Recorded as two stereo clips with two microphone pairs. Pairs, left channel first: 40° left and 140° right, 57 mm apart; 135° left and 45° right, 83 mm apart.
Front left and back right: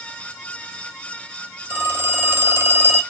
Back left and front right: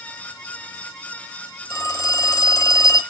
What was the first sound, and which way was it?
A phone ringing, 175° left.